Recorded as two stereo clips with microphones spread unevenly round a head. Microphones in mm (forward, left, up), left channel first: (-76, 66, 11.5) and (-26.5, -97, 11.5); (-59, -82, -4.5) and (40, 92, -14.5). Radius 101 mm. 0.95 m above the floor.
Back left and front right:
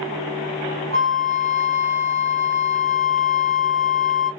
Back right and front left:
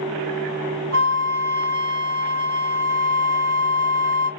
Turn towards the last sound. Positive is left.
turn(degrees=50)